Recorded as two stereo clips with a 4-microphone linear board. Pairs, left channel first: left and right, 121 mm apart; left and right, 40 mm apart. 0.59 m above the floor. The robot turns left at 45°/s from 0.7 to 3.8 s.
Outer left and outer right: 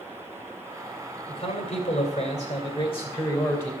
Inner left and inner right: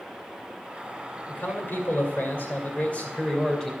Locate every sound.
1.3 s a man speaking: 125° left, 2.5 m; by 3.7 s 15° left, 2.5 m